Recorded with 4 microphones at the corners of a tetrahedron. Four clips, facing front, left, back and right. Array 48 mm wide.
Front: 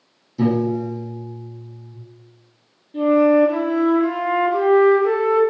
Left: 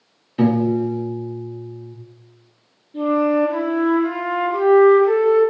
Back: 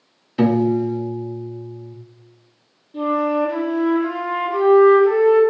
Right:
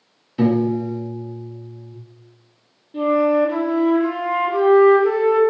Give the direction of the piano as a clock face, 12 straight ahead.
6 o'clock.